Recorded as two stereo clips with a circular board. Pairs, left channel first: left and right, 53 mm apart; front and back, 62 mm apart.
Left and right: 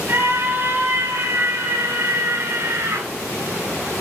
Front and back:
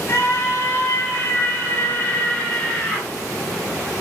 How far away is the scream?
About 4 m.